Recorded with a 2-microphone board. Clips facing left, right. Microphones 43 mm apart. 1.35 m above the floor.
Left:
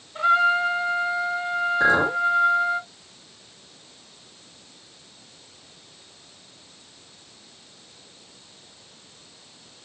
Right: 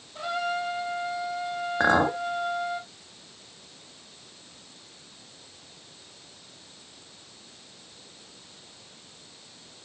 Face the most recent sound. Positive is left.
turn(degrees=-55)  # may be behind; listen again after turning